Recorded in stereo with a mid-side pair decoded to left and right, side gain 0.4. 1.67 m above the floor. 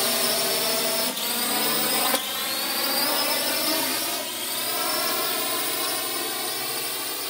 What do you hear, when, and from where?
0.0 s a drone: 15° left